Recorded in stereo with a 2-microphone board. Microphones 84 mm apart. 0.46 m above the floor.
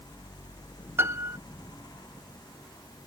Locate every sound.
1.0 s a piano: 25° right (ahead or behind)